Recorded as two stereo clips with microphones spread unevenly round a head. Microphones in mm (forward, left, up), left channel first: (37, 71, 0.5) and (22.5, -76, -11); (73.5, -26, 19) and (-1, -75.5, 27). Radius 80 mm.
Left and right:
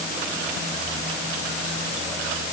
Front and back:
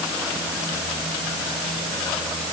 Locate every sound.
Only background noise.